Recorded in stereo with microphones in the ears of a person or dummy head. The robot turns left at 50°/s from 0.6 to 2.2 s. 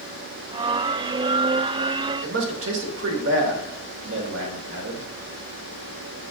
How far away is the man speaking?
About 1.0 m.